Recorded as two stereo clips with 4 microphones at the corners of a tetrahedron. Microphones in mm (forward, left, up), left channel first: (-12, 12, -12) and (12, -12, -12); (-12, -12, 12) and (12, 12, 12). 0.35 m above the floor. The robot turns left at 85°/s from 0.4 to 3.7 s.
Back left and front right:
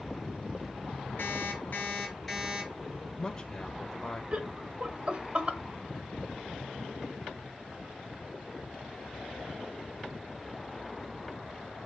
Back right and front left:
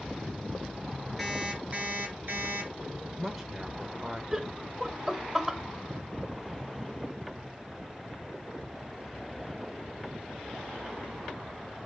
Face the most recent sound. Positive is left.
turn(degrees=-30)